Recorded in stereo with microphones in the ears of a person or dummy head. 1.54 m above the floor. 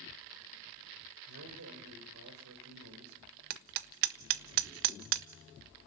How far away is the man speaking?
About 7 m.